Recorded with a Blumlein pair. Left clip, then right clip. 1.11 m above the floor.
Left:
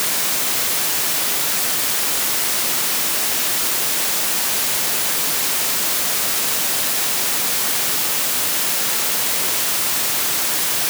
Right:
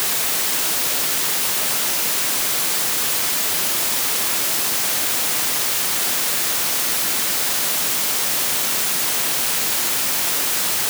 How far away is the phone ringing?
No phone ringing in this recording.